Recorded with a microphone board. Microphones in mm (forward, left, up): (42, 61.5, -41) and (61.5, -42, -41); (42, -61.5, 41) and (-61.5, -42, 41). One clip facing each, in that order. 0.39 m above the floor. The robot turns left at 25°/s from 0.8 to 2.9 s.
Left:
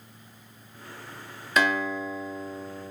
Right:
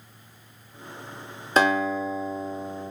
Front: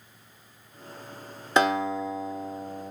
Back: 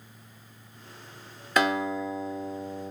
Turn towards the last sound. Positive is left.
turn(degrees=-90)